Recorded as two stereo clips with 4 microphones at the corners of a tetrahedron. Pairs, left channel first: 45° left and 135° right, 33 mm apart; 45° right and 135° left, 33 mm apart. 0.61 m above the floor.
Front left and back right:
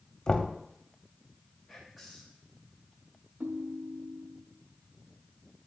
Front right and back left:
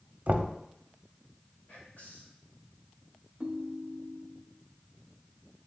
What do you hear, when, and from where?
0.3 s knocking: 100° left, 0.8 m
1.7 s whispering: 45° right, 3 m
3.4 s a ringtone: 165° right, 0.7 m